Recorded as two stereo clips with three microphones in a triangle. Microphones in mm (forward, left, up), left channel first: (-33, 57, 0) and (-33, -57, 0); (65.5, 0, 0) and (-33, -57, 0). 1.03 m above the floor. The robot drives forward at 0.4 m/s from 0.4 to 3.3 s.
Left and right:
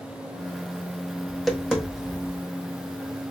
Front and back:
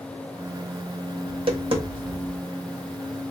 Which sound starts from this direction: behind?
Tapping, at 1.3 s.